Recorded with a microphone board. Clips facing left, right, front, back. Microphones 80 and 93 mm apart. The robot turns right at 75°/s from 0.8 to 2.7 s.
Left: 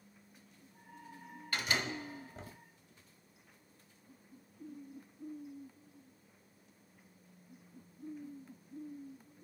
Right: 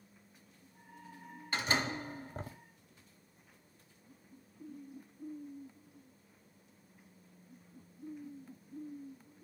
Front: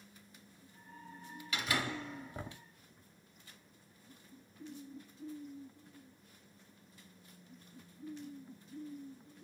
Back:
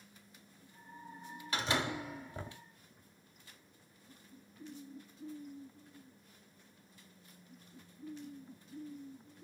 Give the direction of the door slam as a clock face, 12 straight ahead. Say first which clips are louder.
Right 2 dB, back 2 dB; 5 o'clock.